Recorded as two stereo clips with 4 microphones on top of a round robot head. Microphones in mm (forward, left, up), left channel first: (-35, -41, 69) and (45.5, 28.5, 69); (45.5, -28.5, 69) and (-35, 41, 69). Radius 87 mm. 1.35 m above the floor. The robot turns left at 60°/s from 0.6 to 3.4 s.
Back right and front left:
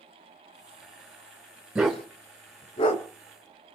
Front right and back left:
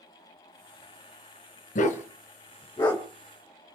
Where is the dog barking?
45° right, 3.5 m; by 3.0 s 125° right, 3.5 m.